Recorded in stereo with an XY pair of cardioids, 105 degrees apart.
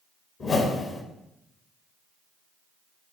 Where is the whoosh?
45° left, 1.6 m.